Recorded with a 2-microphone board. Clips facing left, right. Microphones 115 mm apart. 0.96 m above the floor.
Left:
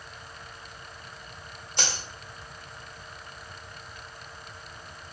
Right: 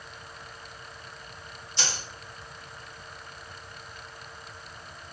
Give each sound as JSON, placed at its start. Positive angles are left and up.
{"t": 1.8, "sound": "a dropped coin", "side_deg": 55, "distance_m": 1.1}